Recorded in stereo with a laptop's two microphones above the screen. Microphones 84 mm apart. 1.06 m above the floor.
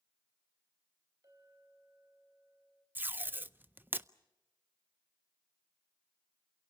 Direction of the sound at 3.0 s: 25° right (ahead or behind).